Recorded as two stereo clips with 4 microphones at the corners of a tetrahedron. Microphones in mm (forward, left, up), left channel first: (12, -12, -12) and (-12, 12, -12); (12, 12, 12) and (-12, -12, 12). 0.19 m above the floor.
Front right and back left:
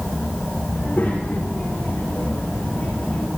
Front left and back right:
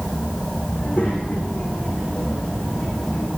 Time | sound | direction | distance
0.7 | a child speaking | 10° right | 10 m